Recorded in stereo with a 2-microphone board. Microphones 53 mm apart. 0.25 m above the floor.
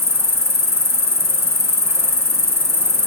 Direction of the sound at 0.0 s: 55° right (ahead or behind).